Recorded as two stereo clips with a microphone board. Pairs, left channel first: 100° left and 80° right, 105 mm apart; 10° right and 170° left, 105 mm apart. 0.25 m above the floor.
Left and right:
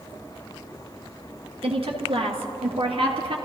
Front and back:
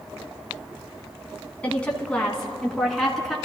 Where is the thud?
I don't hear a thud.